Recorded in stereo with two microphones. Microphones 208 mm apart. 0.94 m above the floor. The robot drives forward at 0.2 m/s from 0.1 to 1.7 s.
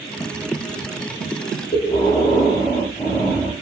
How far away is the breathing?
About 0.8 m.